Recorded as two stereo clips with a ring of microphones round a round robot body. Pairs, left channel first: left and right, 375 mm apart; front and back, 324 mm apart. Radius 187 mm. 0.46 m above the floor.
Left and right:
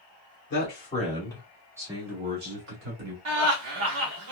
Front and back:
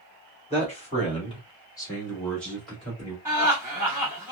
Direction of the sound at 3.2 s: 100° right.